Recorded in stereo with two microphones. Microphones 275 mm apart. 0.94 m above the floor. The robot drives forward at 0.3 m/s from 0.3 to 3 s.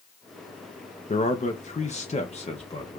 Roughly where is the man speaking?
Left.